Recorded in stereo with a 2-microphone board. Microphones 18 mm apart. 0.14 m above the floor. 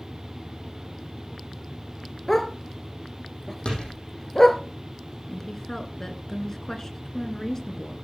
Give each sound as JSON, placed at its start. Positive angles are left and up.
{"t": 2.3, "sound": "a dog barking", "side_deg": 25, "distance_m": 1.1}
{"t": 3.6, "sound": "a door slam", "side_deg": 65, "distance_m": 5.0}
{"t": 5.3, "sound": "a woman speaking", "side_deg": 25, "distance_m": 1.9}